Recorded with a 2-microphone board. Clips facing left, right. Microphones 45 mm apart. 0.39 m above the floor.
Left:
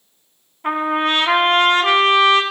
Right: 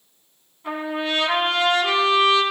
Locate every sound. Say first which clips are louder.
0.6 s a trumpet: left 7 dB; 60° left (ahead or behind), 1.5 m